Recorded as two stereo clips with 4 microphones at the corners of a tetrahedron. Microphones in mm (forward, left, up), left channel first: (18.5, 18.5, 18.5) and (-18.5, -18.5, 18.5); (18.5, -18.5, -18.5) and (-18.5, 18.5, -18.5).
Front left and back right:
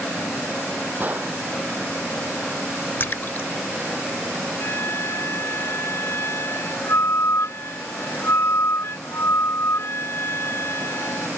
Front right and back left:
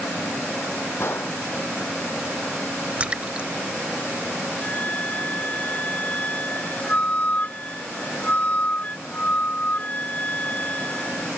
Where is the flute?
15° left.